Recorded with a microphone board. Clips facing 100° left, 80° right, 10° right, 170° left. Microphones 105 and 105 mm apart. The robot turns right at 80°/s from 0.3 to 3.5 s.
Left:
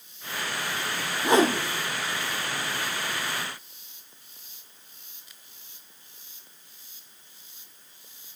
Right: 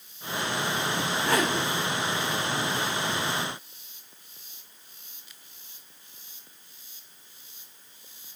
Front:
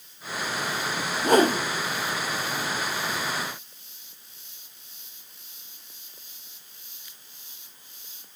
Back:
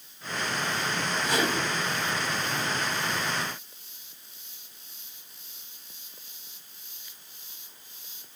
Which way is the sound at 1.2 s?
20° left.